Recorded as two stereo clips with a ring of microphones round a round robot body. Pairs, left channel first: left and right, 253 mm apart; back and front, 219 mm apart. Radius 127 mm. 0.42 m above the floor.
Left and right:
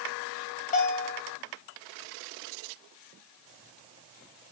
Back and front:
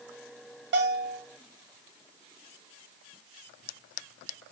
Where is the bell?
30° left, 2 m.